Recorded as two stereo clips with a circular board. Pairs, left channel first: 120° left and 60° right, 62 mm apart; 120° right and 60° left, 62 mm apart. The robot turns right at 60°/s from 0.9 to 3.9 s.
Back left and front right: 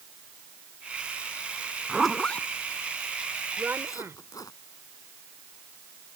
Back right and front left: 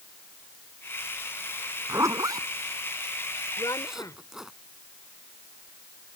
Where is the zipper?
20° left; by 4.5 s 140° left.